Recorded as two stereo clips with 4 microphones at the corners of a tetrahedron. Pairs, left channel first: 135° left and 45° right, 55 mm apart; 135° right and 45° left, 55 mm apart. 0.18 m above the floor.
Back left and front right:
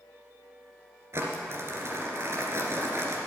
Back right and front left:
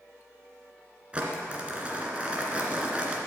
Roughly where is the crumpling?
Ahead.